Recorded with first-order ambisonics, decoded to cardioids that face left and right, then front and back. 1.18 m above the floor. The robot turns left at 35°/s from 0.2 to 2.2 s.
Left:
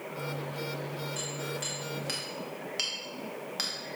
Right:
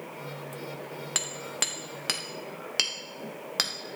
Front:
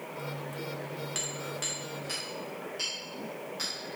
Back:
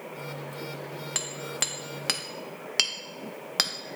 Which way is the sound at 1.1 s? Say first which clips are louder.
Right 9 dB, back 6 dB; 115° right.